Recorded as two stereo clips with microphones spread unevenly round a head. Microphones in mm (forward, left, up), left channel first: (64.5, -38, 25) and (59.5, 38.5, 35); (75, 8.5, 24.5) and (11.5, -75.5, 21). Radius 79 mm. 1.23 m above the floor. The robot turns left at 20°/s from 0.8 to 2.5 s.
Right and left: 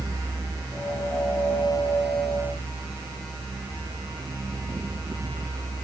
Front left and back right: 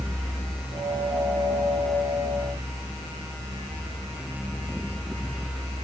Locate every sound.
Only background noise.